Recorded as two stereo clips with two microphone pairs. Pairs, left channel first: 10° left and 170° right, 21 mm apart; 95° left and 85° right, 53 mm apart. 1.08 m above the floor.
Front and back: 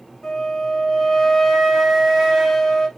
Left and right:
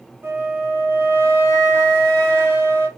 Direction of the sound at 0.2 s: 60° right.